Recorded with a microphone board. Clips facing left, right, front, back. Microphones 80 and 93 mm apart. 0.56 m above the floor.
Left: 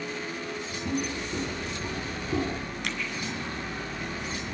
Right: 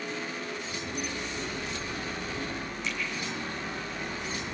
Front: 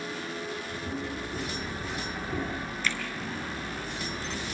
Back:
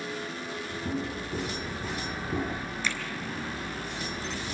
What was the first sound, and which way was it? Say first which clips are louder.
Footsteps: left 7 dB, back 3 dB; 145° left.